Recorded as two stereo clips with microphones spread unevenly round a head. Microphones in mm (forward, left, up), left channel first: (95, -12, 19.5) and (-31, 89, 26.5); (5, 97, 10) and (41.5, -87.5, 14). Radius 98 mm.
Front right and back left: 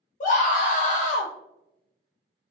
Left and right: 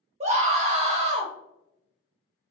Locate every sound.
0.2 s a scream: 30° right, 0.6 m